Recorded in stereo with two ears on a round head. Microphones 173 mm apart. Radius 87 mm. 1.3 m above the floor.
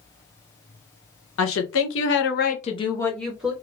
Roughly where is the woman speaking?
Left.